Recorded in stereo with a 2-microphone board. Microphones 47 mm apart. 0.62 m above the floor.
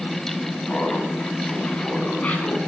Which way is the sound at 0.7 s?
35° left (ahead or behind).